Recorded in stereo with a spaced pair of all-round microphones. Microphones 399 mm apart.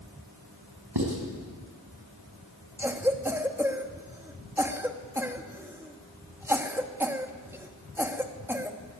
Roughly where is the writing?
Right.